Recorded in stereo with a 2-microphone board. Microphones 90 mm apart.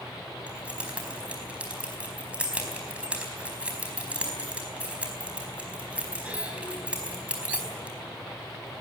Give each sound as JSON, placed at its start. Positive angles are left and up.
{"t": 0.5, "sound": "keys jangling", "side_deg": -15, "distance_m": 4.0}